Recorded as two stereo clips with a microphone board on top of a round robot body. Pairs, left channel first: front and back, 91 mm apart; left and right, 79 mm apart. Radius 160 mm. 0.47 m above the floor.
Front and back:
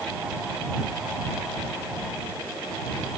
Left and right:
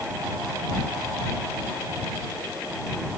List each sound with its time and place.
Only background noise.